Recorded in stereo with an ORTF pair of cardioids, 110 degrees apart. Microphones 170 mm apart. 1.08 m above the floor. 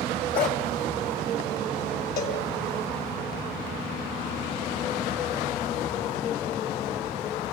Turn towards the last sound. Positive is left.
turn(degrees=55)